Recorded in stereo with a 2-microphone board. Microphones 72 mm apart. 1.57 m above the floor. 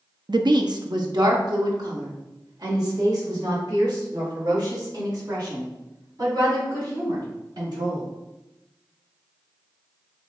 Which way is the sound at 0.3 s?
70° right (ahead or behind).